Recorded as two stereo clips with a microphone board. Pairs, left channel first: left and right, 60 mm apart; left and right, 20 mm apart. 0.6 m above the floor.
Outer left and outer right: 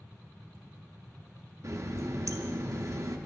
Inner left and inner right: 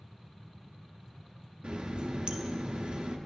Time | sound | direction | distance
1.6 | a running tap | 55° right (ahead or behind) | 0.6 m